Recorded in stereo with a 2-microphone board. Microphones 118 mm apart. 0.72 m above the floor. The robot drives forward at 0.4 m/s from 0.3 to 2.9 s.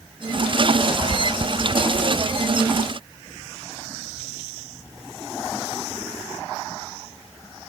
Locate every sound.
1.1 s chewing: 55° right (ahead or behind)